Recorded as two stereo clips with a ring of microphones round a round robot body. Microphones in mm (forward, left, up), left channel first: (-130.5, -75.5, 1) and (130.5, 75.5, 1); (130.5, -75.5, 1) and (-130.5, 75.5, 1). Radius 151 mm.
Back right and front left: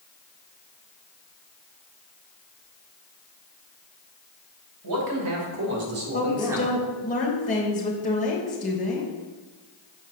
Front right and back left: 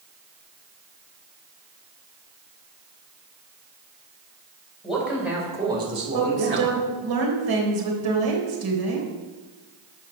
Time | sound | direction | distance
4.8 | a man speaking | 60° left | 3.5 m
6.1 | a woman speaking | 145° left | 2.5 m